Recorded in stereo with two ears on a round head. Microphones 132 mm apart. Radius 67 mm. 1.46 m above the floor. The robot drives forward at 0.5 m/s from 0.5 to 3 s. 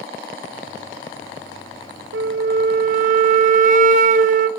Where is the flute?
80° right, 0.6 m; by 4.5 s 60° right (ahead or behind), 0.7 m.